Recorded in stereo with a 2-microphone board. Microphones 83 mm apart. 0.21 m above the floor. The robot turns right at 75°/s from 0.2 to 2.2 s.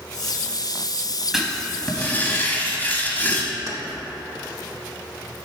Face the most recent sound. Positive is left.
turn(degrees=-45)  # may be behind; listen again after turning